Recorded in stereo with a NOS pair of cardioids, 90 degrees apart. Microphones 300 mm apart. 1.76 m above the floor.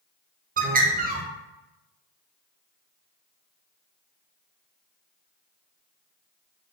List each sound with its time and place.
0.6 s a bird: 30° right, 0.6 m